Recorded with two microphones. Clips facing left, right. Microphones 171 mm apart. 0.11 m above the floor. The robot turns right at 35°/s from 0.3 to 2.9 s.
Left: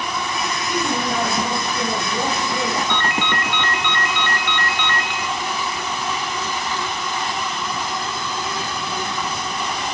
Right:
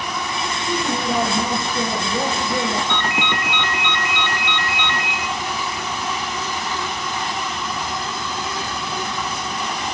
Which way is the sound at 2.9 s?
20° right (ahead or behind).